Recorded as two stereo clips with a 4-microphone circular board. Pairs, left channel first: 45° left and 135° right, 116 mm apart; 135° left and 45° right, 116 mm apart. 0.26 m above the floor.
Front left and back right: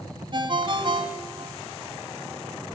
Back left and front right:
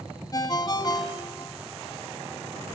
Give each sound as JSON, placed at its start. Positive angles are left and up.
{"t": 0.3, "sound": "a ringtone", "azimuth_deg": -175, "distance_m": 1.9}